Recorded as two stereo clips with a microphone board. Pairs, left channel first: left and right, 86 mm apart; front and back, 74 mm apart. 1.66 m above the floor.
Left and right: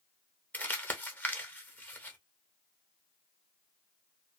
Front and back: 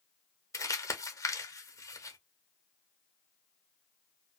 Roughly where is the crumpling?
Ahead left.